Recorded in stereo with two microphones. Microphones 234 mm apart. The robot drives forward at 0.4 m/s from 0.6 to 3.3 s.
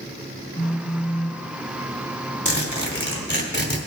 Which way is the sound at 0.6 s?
45° left (ahead or behind).